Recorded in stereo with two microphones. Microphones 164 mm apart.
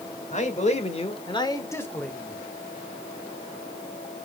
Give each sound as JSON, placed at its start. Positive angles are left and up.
{"t": 0.3, "sound": "a man speaking", "side_deg": 45, "distance_m": 1.8}